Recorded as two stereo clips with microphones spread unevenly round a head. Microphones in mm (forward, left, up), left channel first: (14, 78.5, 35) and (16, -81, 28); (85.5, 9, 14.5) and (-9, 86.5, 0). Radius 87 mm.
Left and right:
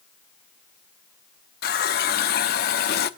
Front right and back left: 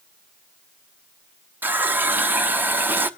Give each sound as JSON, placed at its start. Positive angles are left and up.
{"t": 1.6, "sound": "a running tap", "azimuth_deg": 65, "distance_m": 1.1}